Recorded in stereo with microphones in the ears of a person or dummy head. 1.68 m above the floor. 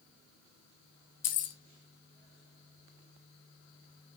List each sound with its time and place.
1.2 s keys jangling: 45° left (ahead or behind), 0.8 m